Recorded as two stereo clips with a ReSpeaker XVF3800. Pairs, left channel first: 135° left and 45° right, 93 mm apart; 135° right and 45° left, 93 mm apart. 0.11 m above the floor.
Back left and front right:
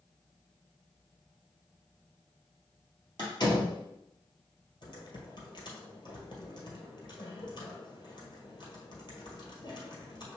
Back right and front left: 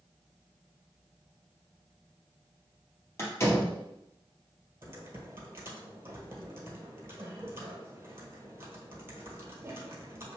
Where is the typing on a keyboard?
110° left, 1.3 m.